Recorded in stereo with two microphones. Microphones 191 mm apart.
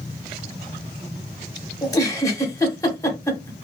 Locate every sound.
1.8 s a giggle: 20° left (ahead or behind), 0.8 m